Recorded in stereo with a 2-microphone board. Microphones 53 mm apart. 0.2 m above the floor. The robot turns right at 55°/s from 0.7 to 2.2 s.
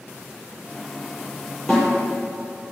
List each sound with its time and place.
1.7 s a snare drum: 10° left (ahead or behind), 6 m; by 1.9 s centre (ahead or behind), 6 m